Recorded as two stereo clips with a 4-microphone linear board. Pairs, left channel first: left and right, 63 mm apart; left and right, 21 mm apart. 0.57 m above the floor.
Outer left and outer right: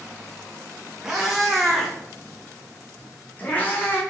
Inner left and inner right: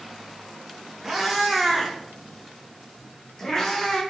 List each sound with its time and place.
1.0 s a cat meowing: 10° right (ahead or behind), 3.5 m; by 4.0 s 35° left (ahead or behind), 3 m